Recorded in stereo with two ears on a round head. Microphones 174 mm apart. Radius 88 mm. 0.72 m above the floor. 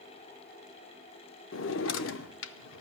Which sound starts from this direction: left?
A drawer, at 1.5 s.